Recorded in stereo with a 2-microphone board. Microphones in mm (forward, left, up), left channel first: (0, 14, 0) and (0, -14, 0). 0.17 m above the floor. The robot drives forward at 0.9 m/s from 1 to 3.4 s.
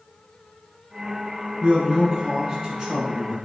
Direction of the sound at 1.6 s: 25° right (ahead or behind).